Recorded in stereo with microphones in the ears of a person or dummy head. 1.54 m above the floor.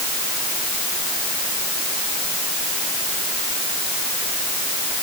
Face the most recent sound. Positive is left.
No sound to turn to.